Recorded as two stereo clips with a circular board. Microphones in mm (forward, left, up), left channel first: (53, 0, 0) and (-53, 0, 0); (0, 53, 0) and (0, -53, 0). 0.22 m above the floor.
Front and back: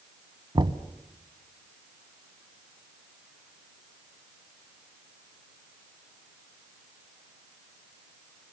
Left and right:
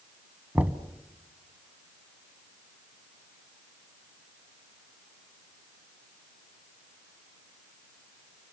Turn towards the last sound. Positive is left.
turn(degrees=-160)